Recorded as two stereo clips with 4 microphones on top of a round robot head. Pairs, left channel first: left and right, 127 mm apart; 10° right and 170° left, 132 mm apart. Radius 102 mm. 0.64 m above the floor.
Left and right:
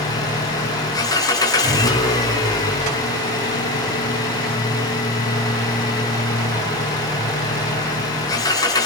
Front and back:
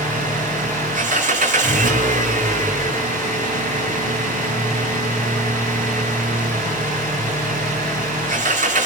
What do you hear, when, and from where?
0.0 s an engine running: 150° left, 5.5 m